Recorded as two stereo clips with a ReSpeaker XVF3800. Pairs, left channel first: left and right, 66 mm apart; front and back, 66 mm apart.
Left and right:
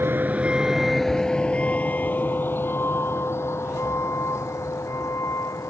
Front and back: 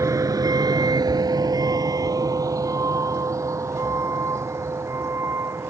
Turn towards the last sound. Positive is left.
turn(degrees=130)